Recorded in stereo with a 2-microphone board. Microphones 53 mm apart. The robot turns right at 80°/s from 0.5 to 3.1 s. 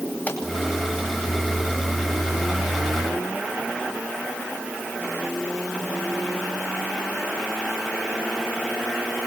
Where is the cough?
I don't hear a cough.